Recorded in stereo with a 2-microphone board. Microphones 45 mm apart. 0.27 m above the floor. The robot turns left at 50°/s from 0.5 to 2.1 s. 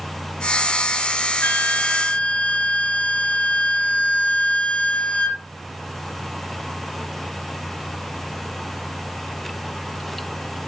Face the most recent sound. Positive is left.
turn(degrees=15)